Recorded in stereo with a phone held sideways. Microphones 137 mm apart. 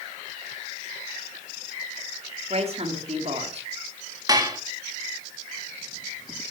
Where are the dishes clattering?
25° right (ahead or behind), 1.7 m.